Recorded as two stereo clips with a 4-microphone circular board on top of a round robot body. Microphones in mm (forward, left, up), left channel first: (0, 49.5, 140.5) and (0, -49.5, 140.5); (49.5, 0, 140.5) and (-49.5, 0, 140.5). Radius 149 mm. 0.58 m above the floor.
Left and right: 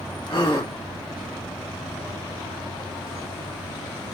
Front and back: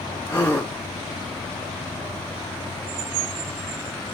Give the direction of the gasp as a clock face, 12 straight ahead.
10 o'clock.